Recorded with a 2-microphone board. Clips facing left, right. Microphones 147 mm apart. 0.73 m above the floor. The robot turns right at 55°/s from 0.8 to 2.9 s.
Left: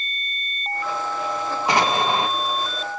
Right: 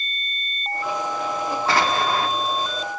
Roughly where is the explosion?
Centre.